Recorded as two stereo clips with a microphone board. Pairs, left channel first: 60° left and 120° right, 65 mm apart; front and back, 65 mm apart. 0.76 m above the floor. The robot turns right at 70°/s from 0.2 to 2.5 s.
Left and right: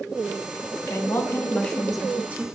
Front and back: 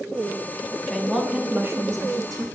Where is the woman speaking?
75° left, 0.9 m; by 2.5 s 170° right, 0.9 m.